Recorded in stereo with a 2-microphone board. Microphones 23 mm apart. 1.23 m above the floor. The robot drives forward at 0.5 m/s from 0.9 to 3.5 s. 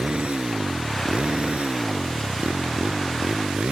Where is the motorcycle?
55° right (ahead or behind); by 3.7 s 65° right (ahead or behind).